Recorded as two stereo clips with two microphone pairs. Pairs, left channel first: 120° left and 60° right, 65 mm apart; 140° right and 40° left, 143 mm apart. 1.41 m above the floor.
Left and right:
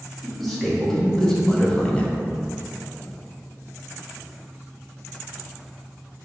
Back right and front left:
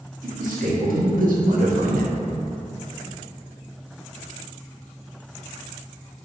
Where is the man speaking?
30° left, 1.5 m; by 2.1 s 55° left, 0.5 m.